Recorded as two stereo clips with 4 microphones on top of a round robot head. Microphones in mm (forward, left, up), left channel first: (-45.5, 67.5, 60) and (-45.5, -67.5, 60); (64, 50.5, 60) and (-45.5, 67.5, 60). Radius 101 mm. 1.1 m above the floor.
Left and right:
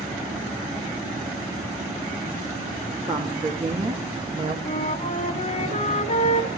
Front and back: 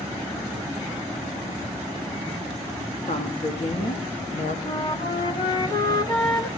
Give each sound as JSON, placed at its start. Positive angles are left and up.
{"t": 3.1, "sound": "a woman speaking", "azimuth_deg": -40, "distance_m": 2.5}
{"t": 4.7, "sound": "a flute", "azimuth_deg": 40, "distance_m": 2.5}